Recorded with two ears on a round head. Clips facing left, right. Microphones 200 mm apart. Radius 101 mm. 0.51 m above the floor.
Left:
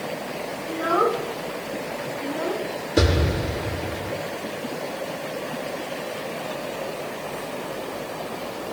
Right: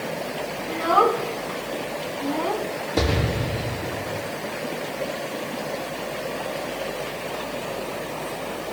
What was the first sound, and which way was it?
A child speaking, 60° right (ahead or behind).